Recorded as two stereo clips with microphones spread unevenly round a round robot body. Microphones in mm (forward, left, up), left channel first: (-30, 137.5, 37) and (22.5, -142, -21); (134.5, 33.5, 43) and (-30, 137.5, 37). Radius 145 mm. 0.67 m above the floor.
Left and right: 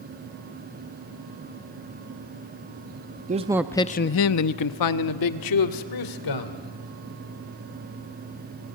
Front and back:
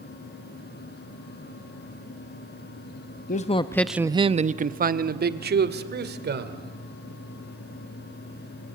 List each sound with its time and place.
3.3 s a man speaking: 50° right, 0.7 m; by 6.6 s 115° left, 2.5 m